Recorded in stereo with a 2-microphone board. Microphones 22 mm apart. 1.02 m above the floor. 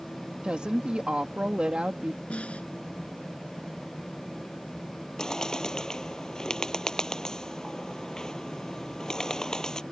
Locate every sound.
0.4 s a woman speaking: 55° right (ahead or behind)
2.3 s a snare drum: 80° left
5.2 s a bird: 30° left (ahead or behind)